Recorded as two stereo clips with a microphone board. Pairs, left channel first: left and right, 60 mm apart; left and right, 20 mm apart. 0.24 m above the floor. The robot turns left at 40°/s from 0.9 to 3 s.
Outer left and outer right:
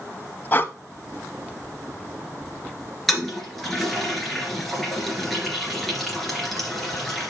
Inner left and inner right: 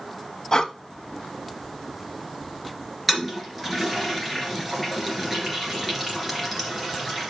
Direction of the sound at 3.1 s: 5° left (ahead or behind).